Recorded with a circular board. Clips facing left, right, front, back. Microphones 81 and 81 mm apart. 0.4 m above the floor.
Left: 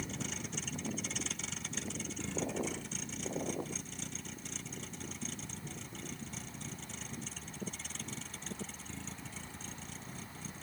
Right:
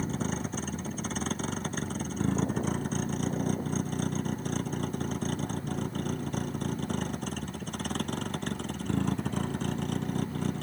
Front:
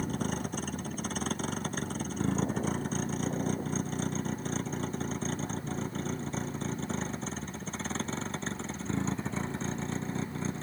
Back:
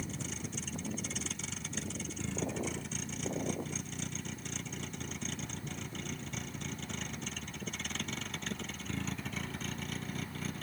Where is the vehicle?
40° right; by 10.6 s 65° right.